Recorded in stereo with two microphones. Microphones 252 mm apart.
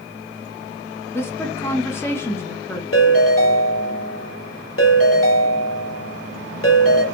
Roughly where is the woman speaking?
Centre.